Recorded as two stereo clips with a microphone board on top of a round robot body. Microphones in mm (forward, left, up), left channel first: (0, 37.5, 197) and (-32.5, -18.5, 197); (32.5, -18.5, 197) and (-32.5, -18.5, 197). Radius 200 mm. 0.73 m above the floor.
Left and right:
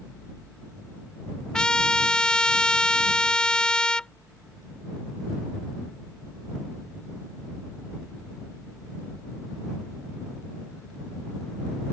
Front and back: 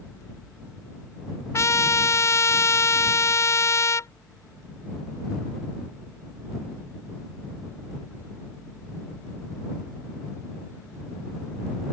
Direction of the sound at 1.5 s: 15° right.